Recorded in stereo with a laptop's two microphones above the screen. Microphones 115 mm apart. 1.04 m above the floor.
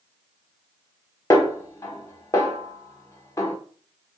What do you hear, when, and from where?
1.3 s a snare drum: 25° left (ahead or behind), 0.9 m